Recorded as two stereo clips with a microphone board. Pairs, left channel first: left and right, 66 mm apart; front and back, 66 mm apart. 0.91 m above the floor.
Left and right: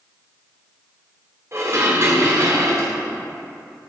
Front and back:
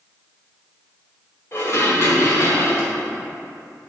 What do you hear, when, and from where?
1.5 s dishes clattering: 45° right, 1.4 m